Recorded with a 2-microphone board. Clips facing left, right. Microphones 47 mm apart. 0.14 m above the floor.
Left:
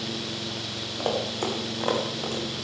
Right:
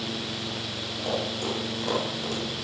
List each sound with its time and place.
1.0 s running footsteps: 45° left (ahead or behind), 5.5 m; by 2.5 s 25° left (ahead or behind), 5.5 m